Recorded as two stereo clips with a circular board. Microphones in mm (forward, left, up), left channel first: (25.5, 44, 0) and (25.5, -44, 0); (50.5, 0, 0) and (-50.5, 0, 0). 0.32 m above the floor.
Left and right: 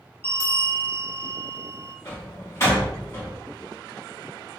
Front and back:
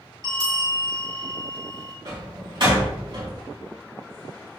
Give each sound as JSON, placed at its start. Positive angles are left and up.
{"t": 0.2, "sound": "a bell", "azimuth_deg": 145, "distance_m": 2.0}
{"t": 2.0, "sound": "a door slam", "azimuth_deg": 145, "distance_m": 2.5}